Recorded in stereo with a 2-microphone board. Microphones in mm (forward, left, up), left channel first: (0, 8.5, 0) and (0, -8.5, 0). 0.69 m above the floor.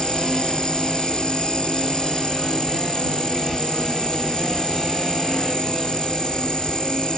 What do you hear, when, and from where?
0.0 s an insect: 65° left (ahead or behind)